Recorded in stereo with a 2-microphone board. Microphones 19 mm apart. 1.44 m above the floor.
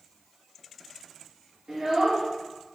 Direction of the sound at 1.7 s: 45° right (ahead or behind).